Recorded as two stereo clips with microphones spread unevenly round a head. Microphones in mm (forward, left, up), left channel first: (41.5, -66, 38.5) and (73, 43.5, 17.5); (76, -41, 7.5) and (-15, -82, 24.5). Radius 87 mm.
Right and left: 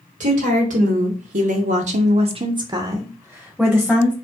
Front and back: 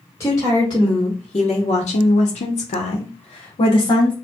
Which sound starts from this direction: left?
A woman speaking, at 0.2 s.